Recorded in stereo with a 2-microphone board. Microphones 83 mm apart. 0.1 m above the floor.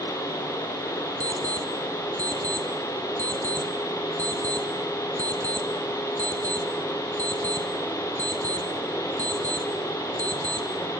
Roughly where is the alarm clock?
Centre.